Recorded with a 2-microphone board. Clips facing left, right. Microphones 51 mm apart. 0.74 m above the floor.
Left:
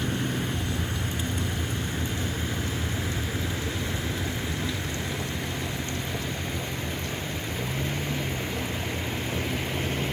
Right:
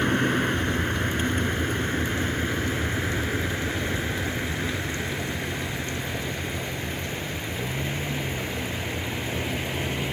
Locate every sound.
0.0 s a vehicle: 50° right (ahead or behind); by 10.1 s 10° right (ahead or behind)